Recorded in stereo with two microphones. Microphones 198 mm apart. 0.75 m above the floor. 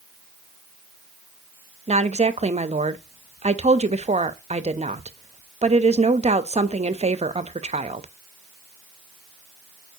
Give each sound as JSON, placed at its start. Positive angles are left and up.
{"t": 1.9, "sound": "a woman speaking", "side_deg": -35, "distance_m": 0.5}